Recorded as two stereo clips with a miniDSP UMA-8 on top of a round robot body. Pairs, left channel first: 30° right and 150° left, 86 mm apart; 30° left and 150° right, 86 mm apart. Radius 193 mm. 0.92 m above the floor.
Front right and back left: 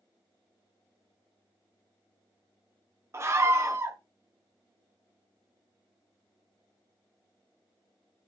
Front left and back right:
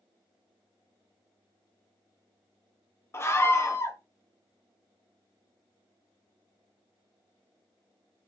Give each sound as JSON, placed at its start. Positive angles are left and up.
{"t": 3.1, "sound": "a scream", "azimuth_deg": 90, "distance_m": 0.7}